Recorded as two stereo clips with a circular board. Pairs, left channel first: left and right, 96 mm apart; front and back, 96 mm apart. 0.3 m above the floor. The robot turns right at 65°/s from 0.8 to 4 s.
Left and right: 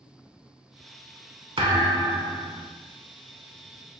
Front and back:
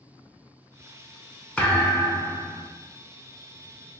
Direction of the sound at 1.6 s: 75° right.